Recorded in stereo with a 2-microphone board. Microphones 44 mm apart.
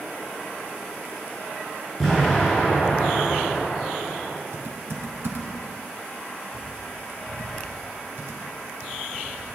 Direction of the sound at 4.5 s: 65° right (ahead or behind).